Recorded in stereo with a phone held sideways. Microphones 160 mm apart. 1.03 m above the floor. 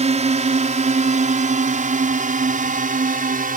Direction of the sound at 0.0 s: 45° right (ahead or behind).